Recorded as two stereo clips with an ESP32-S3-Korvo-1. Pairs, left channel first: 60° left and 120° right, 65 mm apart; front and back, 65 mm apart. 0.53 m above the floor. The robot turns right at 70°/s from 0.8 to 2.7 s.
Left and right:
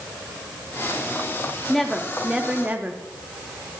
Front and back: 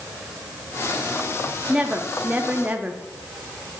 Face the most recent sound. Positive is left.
turn(degrees=-150)